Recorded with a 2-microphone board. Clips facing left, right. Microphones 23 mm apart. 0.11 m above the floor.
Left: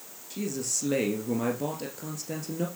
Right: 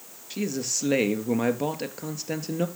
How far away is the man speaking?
About 1.7 m.